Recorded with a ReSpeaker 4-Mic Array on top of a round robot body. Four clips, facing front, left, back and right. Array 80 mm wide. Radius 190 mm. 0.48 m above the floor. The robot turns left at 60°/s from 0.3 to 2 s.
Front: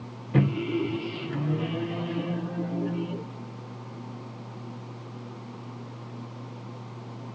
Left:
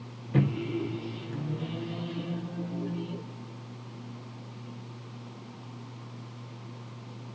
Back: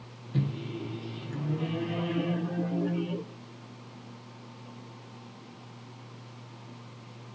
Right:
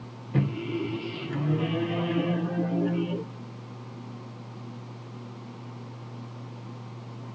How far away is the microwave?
About 0.5 m.